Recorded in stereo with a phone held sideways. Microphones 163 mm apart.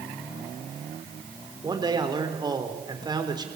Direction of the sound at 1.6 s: 25° right (ahead or behind).